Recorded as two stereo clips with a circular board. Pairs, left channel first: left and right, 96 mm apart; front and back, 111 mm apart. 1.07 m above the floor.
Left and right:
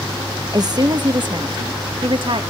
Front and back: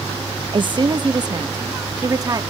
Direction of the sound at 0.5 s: 135° right.